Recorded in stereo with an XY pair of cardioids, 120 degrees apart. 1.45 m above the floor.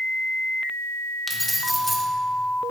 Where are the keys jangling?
5° left, 1.0 m.